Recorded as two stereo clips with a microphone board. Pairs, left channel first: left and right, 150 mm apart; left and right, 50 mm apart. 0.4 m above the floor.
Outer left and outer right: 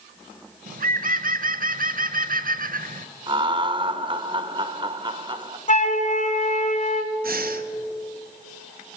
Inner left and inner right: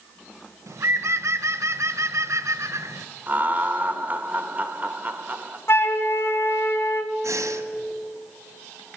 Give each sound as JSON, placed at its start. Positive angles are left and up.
{"t": 0.7, "sound": "a bird", "side_deg": -70, "distance_m": 0.5}
{"t": 3.3, "sound": "laughter", "side_deg": -35, "distance_m": 1.0}
{"t": 5.7, "sound": "a flute", "side_deg": 50, "distance_m": 0.9}
{"t": 7.2, "sound": "breathing", "side_deg": -80, "distance_m": 0.9}